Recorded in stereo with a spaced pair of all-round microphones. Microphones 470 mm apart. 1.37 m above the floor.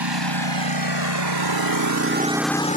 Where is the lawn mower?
60° right (ahead or behind); by 2.8 s 20° left (ahead or behind).